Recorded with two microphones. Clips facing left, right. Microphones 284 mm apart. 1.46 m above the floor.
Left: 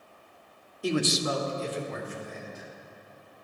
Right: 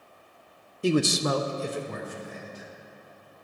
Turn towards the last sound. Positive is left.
turn(degrees=-35)  # may be behind; listen again after turning